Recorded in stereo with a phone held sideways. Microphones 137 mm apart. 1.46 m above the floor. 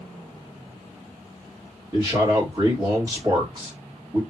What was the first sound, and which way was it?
A man speaking, 30° right (ahead or behind).